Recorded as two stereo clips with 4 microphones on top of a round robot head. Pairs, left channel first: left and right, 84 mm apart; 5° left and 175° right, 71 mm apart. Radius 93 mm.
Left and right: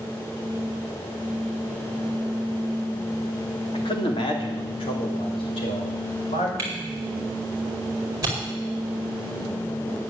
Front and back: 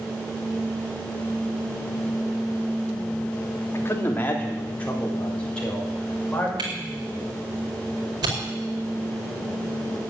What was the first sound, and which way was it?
A man speaking, 65° left.